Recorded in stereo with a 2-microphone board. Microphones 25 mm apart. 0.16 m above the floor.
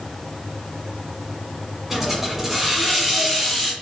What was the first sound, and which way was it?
A hiss, 10° right (ahead or behind).